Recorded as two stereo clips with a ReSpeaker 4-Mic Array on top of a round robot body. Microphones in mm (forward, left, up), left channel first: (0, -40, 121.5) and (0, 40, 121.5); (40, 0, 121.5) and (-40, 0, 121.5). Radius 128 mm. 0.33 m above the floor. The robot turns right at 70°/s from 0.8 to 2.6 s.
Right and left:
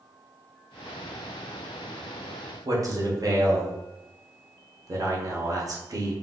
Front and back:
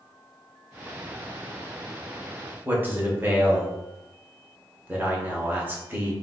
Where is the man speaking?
120° left, 1.5 m.